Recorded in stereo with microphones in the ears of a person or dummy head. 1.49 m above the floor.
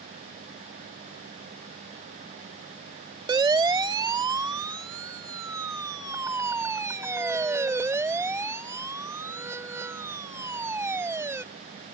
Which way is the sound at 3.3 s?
20° right (ahead or behind).